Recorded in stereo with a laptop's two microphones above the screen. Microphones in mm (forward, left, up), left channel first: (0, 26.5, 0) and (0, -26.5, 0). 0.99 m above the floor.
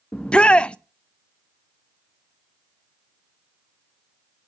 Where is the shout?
20° left (ahead or behind), 0.6 m.